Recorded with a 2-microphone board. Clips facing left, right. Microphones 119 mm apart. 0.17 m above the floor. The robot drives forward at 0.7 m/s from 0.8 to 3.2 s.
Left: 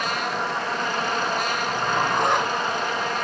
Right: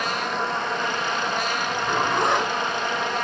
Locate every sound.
1.7 s a zipper: 5° left (ahead or behind), 3.5 m; by 3.2 s centre (ahead or behind), 4.5 m